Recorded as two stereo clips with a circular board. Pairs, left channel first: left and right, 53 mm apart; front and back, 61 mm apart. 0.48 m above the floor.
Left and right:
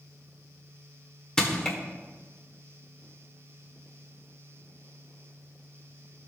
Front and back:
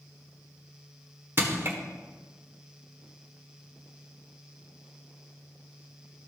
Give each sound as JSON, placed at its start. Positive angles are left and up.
{"t": 1.4, "sound": "crushing", "azimuth_deg": 160, "distance_m": 1.4}